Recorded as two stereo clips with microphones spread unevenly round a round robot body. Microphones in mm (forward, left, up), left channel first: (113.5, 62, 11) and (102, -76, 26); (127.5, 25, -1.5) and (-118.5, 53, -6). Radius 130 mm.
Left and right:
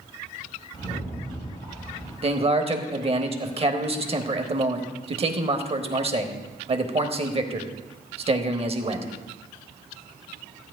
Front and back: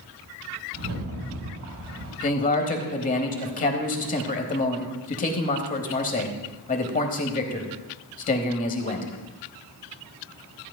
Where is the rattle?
145° left, 4 m.